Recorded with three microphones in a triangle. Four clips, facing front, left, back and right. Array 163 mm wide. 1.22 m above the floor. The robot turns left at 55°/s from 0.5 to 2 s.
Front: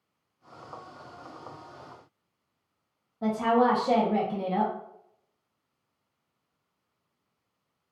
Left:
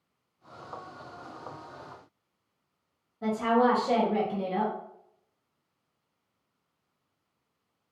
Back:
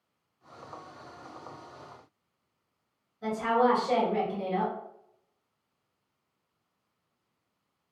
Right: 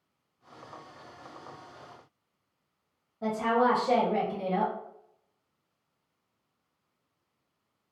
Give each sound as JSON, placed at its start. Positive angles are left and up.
{"t": 3.2, "sound": "a woman speaking", "azimuth_deg": 0, "distance_m": 0.7}